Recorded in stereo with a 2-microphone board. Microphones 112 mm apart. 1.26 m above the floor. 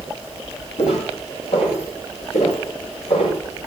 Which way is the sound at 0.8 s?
80° left.